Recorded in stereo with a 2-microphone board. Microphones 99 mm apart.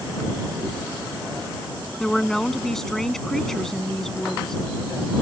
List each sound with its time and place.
2.0 s a woman speaking: 5° left (ahead or behind)